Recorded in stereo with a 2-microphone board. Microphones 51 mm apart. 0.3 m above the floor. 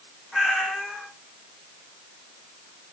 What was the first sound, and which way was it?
A cat meowing, 5° right (ahead or behind).